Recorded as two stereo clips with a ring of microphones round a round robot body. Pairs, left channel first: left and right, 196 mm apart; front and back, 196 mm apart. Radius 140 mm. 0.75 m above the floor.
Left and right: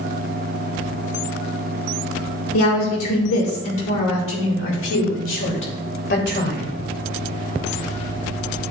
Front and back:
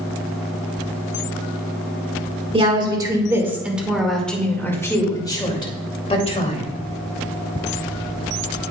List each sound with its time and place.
2.5 s a woman speaking: 115° left, 2 m; by 6.6 s 60° left, 3 m